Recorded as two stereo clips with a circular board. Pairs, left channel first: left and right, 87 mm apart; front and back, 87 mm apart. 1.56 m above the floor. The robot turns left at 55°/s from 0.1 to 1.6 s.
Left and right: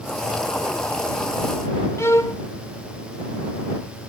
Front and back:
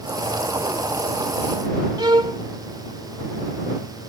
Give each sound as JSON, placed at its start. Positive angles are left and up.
{"t": 2.0, "sound": "a violin", "azimuth_deg": 145}